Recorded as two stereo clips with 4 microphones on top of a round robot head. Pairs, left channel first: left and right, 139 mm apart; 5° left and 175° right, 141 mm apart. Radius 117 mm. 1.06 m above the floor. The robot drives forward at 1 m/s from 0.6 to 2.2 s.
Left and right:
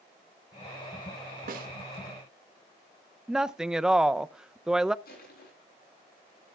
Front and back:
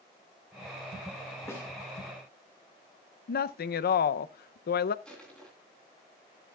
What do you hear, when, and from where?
1.5 s a snare drum: 70° right, 1.8 m; by 1.7 s 80° right, 1.8 m
3.3 s a woman speaking: 5° right, 0.5 m
5.0 s crushing: 90° left, 9 m